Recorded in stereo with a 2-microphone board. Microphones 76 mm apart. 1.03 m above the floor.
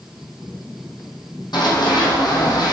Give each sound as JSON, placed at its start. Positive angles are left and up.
{"t": 1.5, "sound": "running footsteps", "side_deg": 70, "distance_m": 3.0}